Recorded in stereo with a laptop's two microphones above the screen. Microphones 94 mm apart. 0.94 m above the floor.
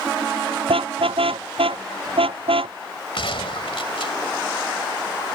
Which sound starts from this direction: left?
A gunshot, at 3.1 s.